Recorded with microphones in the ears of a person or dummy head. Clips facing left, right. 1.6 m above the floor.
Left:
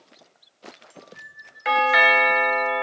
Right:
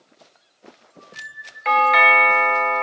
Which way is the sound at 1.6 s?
5° left (ahead or behind).